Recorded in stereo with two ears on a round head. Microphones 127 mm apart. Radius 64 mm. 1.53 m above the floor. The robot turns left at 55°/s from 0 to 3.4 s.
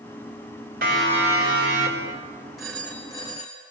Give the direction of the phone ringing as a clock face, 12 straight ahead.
6 o'clock.